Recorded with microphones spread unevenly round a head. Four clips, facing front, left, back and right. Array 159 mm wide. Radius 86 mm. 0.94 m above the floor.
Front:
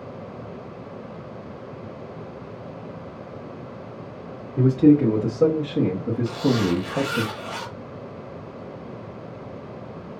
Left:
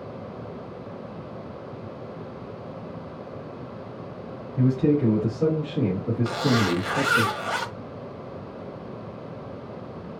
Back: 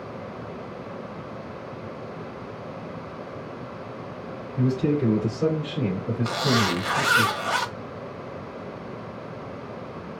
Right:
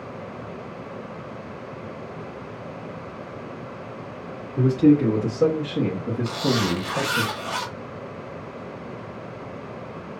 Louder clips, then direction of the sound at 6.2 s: Left 1 dB, front 2 dB; 170° left.